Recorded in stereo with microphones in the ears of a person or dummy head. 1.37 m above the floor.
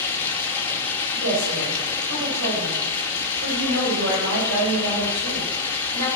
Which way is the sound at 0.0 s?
10° left (ahead or behind).